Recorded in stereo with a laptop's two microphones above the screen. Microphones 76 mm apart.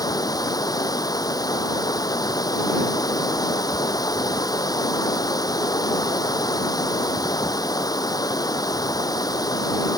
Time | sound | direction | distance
0.0 | running water | 55° left (ahead or behind) | ?